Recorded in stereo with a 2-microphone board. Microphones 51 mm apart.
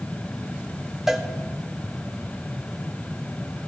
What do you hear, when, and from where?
1.1 s a cowbell: 5° right (ahead or behind), 0.8 m